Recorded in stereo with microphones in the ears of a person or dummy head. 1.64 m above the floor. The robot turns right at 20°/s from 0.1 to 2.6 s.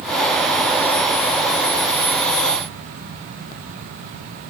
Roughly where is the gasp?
I don't hear a gasp.